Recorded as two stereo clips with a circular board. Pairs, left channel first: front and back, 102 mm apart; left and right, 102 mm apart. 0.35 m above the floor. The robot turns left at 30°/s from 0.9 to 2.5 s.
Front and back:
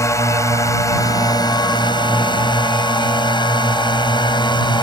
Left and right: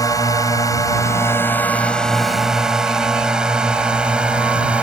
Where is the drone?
50° left; by 4.8 s 15° right.